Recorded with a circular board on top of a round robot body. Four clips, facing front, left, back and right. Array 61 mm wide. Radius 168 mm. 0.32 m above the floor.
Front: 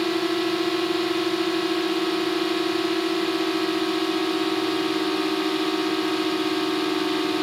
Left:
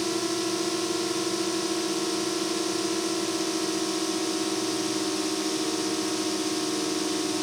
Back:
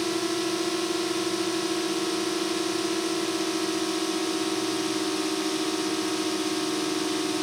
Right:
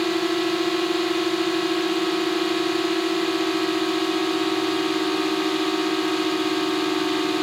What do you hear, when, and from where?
0.0 s a drone: 65° right